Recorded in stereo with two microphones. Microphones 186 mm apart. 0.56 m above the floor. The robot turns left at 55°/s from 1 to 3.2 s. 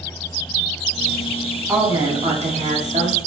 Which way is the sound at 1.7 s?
20° right.